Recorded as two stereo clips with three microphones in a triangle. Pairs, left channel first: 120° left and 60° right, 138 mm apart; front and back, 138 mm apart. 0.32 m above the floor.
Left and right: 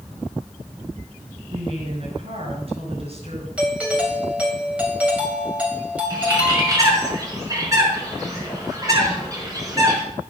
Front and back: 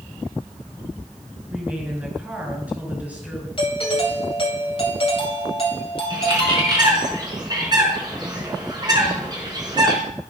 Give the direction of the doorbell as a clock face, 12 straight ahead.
11 o'clock.